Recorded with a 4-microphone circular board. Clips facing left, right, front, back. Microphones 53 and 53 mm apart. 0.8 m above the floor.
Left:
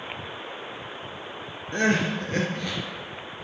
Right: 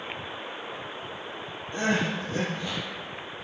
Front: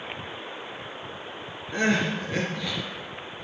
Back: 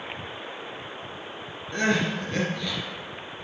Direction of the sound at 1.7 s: 80° left.